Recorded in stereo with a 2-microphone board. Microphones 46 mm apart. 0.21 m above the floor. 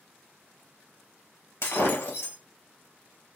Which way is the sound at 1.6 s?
75° left (ahead or behind).